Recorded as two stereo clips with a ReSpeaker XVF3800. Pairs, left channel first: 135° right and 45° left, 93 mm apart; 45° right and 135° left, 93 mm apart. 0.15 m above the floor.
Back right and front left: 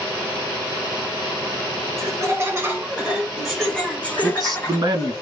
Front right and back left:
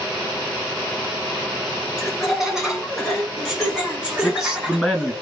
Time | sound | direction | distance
2.0 | laughter | 50° left | 1.5 m
4.2 | a man speaking | 55° left | 2 m